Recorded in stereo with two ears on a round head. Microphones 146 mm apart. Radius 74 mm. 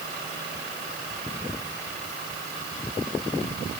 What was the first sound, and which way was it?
Only background noise.